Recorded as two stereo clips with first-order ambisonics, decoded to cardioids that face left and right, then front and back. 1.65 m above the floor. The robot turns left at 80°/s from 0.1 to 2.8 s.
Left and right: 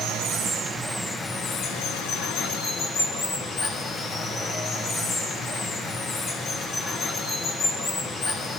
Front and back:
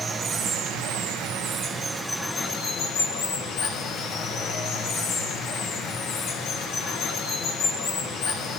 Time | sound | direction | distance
0.0 | running water | 110° right | 0.9 m